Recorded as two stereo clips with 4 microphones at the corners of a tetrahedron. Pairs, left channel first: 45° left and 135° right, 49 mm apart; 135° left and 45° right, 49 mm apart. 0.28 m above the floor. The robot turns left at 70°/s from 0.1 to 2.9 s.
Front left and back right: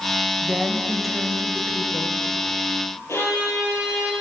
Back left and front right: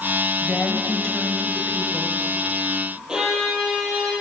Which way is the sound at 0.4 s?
155° right.